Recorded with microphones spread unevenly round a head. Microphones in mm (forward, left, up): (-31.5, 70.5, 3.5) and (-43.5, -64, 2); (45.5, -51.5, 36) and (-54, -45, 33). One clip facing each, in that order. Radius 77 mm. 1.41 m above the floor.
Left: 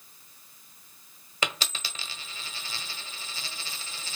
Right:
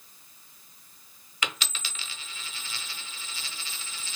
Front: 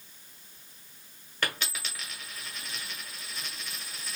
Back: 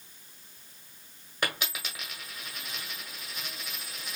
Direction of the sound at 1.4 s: 100° left.